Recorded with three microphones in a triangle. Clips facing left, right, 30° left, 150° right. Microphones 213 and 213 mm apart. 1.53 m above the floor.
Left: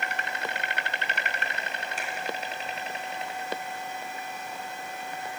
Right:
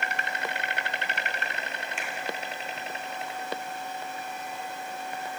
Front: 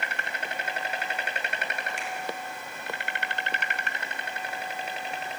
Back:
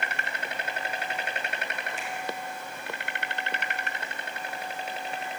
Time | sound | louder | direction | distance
2.0 | a finger snap | left 1 dB, even | 40° left | 4.5 m